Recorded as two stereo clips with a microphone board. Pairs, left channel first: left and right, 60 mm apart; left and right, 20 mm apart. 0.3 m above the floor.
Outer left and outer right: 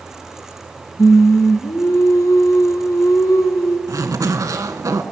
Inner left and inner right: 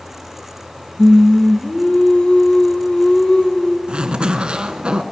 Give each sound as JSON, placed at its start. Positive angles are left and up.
{"t": 1.0, "sound": "singing", "side_deg": 70, "distance_m": 2.0}
{"t": 3.9, "sound": "a zipper", "side_deg": -75, "distance_m": 1.2}